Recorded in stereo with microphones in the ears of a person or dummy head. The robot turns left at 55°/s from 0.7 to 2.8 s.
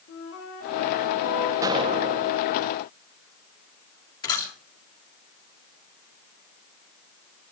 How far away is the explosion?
About 2.0 m.